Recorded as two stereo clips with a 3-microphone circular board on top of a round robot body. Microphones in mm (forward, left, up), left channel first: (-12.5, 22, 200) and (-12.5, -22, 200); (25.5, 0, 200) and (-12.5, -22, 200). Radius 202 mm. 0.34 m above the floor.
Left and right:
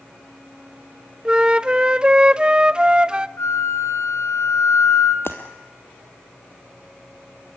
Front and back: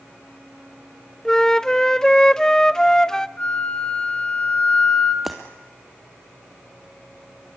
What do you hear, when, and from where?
1.2 s a flute: 35° right, 0.8 m
3.4 s a flute: 95° left, 1.4 m
5.2 s breaking glass: 125° left, 1.4 m